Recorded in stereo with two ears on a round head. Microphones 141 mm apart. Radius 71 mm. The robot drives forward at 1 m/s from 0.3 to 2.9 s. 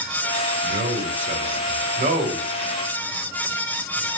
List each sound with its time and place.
0.6 s a man speaking: 45° right (ahead or behind), 2 m